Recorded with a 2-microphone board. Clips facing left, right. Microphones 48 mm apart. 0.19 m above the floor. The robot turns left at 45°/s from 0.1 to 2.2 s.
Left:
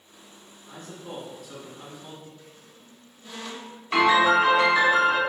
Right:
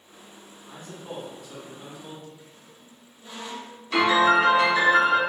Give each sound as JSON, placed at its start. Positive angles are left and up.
{"t": 0.7, "sound": "a man speaking", "azimuth_deg": -140, "distance_m": 1.2}
{"t": 2.4, "sound": "a squeak", "side_deg": -20, "distance_m": 1.1}
{"t": 3.9, "sound": "a piano", "side_deg": 30, "distance_m": 1.5}